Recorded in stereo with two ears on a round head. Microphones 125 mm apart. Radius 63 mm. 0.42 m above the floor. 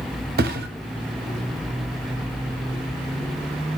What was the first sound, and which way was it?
A thud, 70° right (ahead or behind).